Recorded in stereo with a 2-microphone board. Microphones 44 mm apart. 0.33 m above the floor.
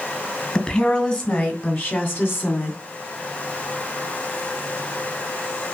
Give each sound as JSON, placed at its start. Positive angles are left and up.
{"t": 0.6, "sound": "a woman speaking", "side_deg": 20, "distance_m": 2.5}